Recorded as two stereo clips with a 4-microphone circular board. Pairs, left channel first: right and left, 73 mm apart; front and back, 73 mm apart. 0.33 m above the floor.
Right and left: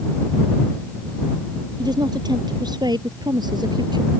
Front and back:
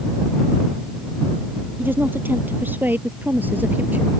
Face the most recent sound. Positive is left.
turn(degrees=110)